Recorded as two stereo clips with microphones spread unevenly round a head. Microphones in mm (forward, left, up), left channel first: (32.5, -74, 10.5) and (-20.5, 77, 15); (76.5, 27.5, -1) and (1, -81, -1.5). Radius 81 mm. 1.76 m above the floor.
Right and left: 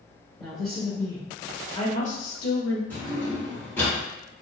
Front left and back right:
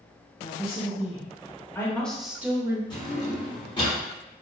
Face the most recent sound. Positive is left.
turn(degrees=5)